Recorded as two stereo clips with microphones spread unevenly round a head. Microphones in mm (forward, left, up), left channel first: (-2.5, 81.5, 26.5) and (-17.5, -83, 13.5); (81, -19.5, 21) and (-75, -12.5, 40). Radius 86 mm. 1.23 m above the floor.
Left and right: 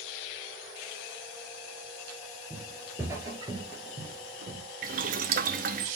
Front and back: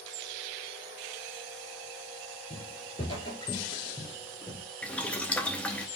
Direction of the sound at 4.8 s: 90° right.